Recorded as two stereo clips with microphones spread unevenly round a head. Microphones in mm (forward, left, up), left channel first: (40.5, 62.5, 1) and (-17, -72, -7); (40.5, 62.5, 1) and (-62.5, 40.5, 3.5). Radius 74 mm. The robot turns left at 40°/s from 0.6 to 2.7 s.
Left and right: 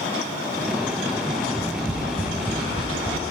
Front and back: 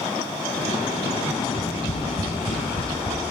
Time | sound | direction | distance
1.5 | tapping | 30° left | 3 m